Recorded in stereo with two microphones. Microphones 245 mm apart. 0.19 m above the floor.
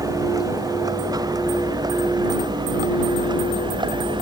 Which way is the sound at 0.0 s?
15° right (ahead or behind).